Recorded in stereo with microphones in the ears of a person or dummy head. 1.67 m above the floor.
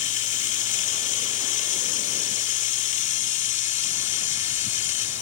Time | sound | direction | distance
0.0 | running water | 45° left (ahead or behind) | ?